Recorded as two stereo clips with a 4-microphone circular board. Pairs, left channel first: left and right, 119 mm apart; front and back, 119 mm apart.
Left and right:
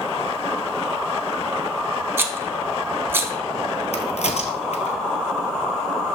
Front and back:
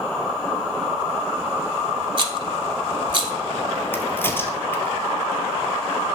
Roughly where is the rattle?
Behind right.